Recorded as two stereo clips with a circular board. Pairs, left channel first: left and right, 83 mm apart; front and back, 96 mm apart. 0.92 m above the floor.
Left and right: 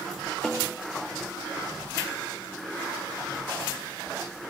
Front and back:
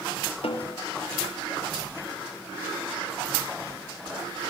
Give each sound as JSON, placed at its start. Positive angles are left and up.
{"t": 0.4, "sound": "a snare drum", "azimuth_deg": 5, "distance_m": 2.5}